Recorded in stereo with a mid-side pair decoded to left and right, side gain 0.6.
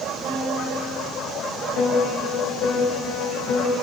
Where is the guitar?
50° right, 2.5 m.